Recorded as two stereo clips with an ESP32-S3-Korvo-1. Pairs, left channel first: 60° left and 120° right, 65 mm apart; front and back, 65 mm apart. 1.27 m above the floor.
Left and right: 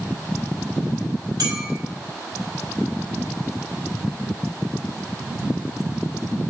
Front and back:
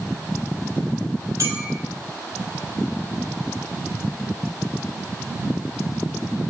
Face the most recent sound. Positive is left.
turn(degrees=-140)